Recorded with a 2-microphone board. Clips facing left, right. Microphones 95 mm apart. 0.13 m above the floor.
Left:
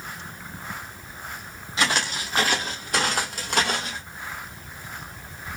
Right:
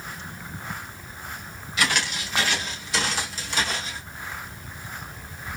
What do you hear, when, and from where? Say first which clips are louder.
1.8 s footsteps: left 1 dB; 30° left (ahead or behind), 1.9 m; by 4.0 s 70° left (ahead or behind), 2.0 m